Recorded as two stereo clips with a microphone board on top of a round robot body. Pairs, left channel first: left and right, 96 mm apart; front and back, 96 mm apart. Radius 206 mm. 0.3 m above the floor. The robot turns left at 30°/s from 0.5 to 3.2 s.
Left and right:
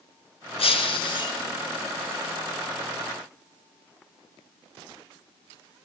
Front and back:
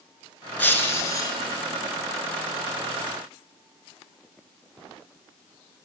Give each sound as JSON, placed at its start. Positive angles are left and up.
{"t": 0.6, "sound": "breaking glass", "azimuth_deg": 75, "distance_m": 2.5}